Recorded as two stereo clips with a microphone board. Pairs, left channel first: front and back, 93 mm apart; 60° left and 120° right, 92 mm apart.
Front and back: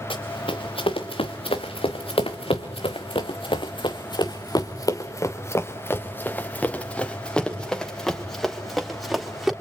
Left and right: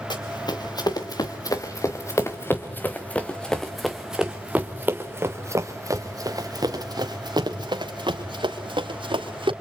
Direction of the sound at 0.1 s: 20° left.